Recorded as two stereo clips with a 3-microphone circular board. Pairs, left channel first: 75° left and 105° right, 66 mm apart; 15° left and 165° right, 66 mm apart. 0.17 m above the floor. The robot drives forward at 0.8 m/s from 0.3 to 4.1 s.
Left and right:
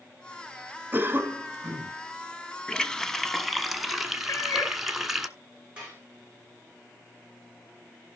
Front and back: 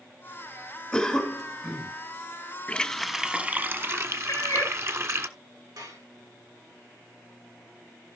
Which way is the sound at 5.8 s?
175° right.